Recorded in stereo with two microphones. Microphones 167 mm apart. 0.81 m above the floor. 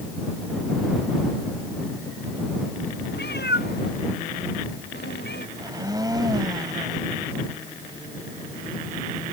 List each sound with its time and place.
3.1 s a cat meowing: 90° left; by 5.5 s 85° left
5.6 s a blender: 25° right (ahead or behind)